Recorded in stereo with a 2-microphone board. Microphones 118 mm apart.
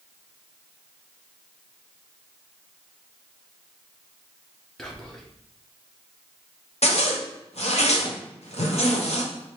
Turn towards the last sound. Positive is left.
turn(degrees=65)  # may be behind; listen again after turning